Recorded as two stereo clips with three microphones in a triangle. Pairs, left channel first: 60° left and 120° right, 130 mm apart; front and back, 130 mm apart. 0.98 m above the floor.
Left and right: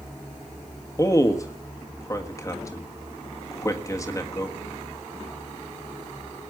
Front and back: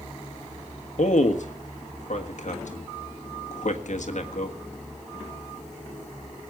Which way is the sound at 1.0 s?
5° right.